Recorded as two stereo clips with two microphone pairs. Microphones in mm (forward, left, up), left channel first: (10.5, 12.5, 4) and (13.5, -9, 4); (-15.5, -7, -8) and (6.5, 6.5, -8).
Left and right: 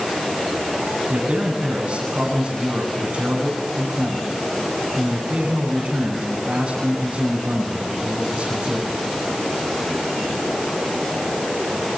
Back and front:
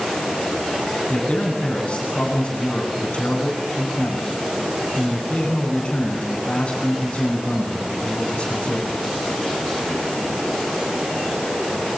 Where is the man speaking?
100° right, 8.5 m.